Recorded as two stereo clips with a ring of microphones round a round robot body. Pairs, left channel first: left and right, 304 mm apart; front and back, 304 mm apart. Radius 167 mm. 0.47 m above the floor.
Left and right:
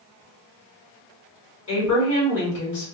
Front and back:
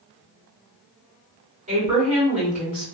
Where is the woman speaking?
120° left, 2.0 m.